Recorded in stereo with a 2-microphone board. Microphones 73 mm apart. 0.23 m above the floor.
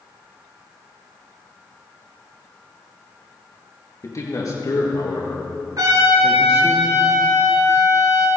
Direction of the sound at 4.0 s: 50° left (ahead or behind).